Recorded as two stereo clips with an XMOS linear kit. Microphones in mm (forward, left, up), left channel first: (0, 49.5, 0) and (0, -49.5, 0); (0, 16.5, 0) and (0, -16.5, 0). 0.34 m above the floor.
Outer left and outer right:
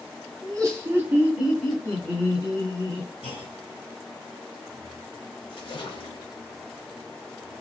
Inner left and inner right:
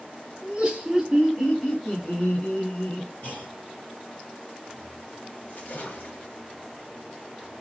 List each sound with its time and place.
0.4 s laughter: 40° right (ahead or behind), 1.5 m; by 3.1 s 35° left (ahead or behind), 2.5 m
3.2 s a clunk: 65° left (ahead or behind), 2 m
5.5 s a splash: 60° left (ahead or behind), 1.1 m